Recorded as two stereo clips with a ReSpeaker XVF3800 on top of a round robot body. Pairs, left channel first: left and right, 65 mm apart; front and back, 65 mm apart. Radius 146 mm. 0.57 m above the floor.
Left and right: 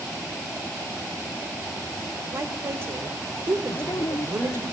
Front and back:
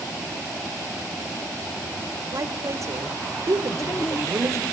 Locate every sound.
2.3 s a woman speaking: 140° right, 3 m
3.7 s a woman speaking: 55° left, 1.2 m